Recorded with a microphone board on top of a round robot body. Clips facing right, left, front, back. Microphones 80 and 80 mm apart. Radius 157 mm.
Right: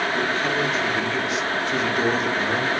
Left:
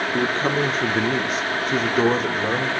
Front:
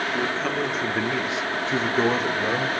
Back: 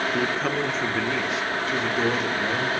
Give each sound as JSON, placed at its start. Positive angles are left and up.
{"t": 0.1, "sound": "a man speaking", "azimuth_deg": 110, "distance_m": 1.1}